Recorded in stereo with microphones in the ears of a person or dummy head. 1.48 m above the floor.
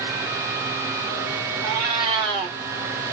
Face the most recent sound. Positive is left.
turn(degrees=-15)  # may be behind; listen again after turning